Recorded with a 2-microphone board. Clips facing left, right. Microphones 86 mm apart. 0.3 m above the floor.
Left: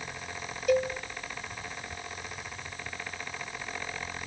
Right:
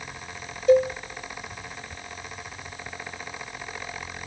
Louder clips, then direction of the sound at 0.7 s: Right 8 dB; 30° right (ahead or behind).